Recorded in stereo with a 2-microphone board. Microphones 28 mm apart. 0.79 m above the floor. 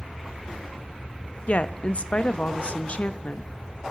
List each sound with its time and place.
1.5 s a woman speaking: 45° left (ahead or behind), 0.5 m